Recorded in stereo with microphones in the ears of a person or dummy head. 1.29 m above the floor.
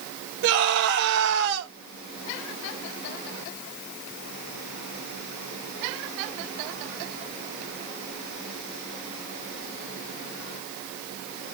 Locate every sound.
0.4 s a scream: 65° right (ahead or behind), 5.5 m